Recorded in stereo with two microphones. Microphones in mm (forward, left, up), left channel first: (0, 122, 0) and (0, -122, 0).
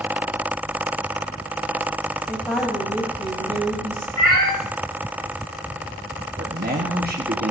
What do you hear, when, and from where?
2.3 s a woman speaking: 5° left (ahead or behind), 3.5 m
4.2 s a cat meowing: 85° left, 4.5 m
6.4 s a man speaking: 40° right (ahead or behind), 1.4 m